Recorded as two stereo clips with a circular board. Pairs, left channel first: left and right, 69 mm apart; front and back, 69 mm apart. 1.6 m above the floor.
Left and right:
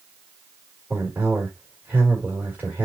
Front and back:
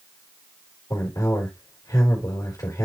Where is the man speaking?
25° right, 4 m.